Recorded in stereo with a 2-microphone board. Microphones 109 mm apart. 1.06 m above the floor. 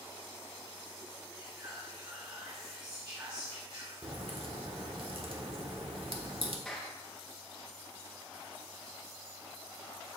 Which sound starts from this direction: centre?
A clap, at 6.7 s.